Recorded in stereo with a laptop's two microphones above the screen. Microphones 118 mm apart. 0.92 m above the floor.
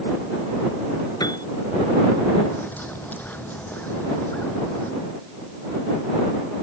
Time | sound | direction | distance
1.2 | a piano | 35° left (ahead or behind) | ?
2.5 | a bird | 15° left (ahead or behind) | ?